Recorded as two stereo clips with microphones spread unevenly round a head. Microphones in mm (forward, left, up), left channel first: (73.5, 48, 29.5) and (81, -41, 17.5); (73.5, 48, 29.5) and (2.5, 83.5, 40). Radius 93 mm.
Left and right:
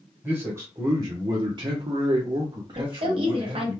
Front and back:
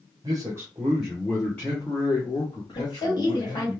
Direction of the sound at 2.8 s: 75° right.